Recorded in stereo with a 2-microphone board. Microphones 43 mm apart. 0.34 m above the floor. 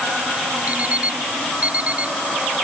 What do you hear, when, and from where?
0.7 s an alarm clock: 35° right (ahead or behind)